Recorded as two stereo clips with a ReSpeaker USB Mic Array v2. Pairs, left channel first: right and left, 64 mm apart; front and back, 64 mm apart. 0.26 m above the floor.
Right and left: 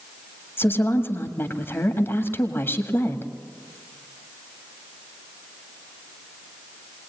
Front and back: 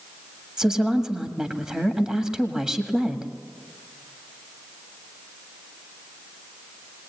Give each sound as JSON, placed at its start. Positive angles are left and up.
{"t": 0.6, "sound": "a woman speaking", "azimuth_deg": -105, "distance_m": 1.7}